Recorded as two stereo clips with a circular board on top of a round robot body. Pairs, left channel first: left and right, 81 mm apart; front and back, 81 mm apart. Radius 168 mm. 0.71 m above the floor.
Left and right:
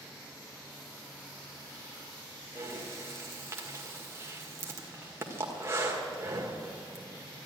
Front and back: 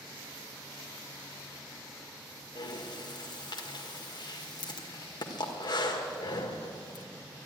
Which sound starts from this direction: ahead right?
Breathing, at 2.5 s.